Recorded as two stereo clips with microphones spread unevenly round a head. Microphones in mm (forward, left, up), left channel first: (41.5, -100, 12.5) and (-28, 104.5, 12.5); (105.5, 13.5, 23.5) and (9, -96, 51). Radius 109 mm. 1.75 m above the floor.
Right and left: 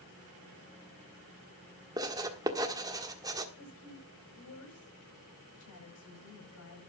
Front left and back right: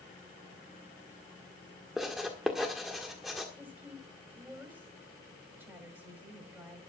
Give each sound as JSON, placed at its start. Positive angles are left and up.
{"t": 2.0, "sound": "writing", "azimuth_deg": 165, "distance_m": 1.4}
{"t": 3.6, "sound": "a woman speaking", "azimuth_deg": -55, "distance_m": 9.0}